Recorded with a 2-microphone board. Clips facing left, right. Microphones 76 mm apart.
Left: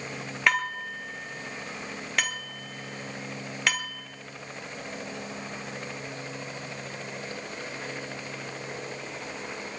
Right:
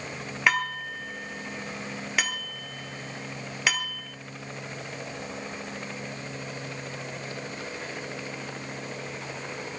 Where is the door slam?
No door slam in this recording.